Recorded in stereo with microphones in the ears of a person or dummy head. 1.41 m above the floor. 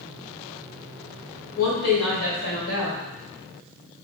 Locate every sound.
1.6 s a woman speaking: 85° left, 1.9 m